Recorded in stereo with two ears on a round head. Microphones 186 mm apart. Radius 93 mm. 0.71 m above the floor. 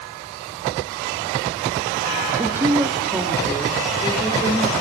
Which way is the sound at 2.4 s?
20° right (ahead or behind).